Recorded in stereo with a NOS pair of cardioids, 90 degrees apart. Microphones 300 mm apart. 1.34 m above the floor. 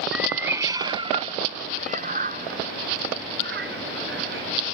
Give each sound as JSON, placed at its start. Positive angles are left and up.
{"t": 0.1, "sound": "a cat meowing", "azimuth_deg": 0}